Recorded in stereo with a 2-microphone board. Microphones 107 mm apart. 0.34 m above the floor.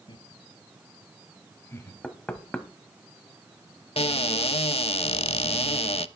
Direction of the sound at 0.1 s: 50° left (ahead or behind).